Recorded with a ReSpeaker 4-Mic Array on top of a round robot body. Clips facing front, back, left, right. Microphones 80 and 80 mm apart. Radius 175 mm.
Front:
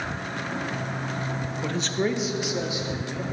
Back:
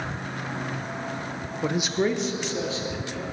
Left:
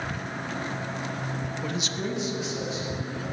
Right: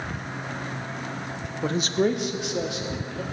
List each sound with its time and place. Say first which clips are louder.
1.6 s a man speaking: back 3 dB, right 11 dB; 125° right, 0.8 m; by 3.2 s 70° right, 1.9 m